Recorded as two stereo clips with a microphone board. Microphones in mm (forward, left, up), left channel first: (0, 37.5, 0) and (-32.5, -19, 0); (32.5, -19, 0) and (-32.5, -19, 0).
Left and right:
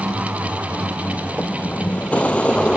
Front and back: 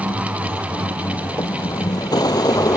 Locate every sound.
0.0 s a vehicle: 5° left; by 2.8 s 15° right